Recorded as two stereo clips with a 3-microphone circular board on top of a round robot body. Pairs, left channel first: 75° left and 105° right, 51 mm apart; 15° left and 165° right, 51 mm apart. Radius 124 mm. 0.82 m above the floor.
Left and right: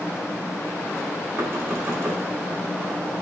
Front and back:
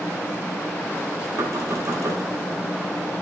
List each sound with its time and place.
1.4 s knocking: 145° right, 3.5 m